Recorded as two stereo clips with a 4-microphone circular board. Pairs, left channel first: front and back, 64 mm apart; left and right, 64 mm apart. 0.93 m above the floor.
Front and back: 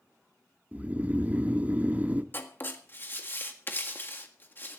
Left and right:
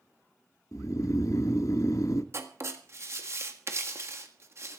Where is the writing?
50° right, 1.8 m.